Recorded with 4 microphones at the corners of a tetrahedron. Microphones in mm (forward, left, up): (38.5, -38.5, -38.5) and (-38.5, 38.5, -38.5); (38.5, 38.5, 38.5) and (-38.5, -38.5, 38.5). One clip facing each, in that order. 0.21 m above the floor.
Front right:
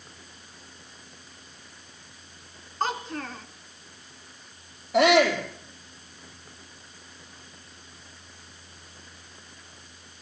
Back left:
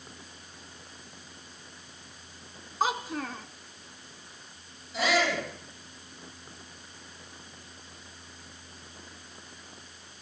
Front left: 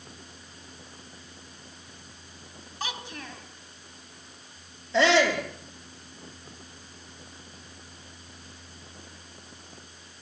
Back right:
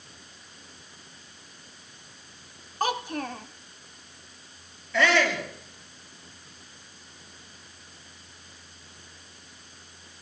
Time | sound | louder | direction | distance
2.8 | a child speaking | even, back right 9 dB | 145° right | 1.1 m
4.9 | a shout | front right 8 dB, front left 2 dB | 20° right | 6.5 m